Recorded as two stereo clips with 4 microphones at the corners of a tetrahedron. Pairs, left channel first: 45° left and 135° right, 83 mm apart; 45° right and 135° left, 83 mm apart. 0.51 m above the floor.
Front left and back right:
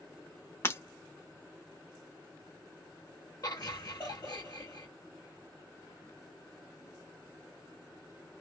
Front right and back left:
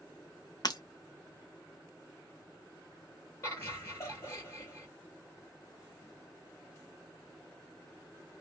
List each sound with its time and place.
0.6 s breaking glass: 15° right, 0.6 m
3.4 s laughter: 10° left, 2.5 m